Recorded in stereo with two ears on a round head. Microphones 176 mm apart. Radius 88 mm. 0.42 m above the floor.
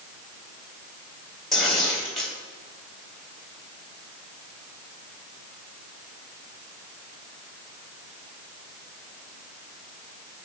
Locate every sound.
1.5 s tearing paper: centre (ahead or behind), 1.8 m